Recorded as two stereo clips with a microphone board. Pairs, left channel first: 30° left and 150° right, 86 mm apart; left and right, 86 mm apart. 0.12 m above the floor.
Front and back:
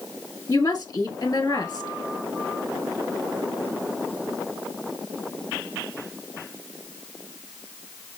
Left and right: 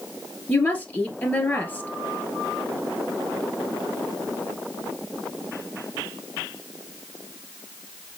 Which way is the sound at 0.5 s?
20° left.